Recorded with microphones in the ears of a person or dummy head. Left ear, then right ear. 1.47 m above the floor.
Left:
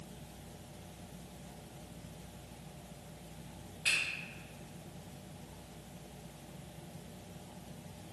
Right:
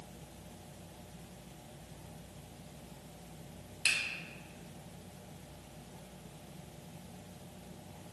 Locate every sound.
3.9 s a finger snap: 65° right (ahead or behind), 1.6 m